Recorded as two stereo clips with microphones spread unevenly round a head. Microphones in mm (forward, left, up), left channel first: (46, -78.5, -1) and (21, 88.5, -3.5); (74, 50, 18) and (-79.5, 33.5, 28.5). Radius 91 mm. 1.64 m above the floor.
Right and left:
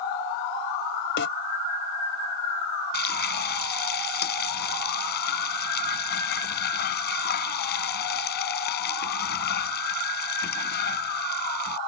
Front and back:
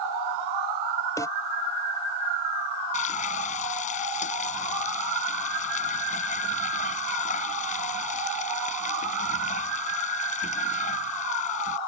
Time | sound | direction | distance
1.2 | a snare drum | 70° right | ?
2.9 | frying | 50° right | ?